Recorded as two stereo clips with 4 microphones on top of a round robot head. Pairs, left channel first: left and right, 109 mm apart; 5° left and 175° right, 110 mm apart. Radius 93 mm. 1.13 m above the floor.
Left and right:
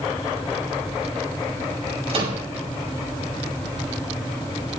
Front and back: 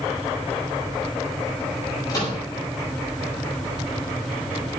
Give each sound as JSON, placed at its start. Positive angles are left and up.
{"t": 2.1, "sound": "a microwave", "azimuth_deg": -60, "distance_m": 6.0}